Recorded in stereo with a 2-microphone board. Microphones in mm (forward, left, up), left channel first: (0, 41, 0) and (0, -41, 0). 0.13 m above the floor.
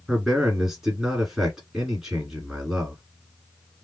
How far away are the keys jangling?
No keys jangling in this recording.